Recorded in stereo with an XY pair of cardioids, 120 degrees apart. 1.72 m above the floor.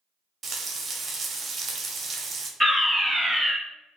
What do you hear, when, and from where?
0.4 s frying: 40° right, 0.6 m
2.6 s a fire alarm: 10° right, 1.4 m